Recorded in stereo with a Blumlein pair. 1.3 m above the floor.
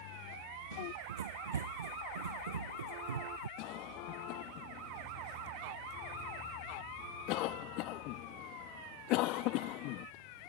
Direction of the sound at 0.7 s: 65° right.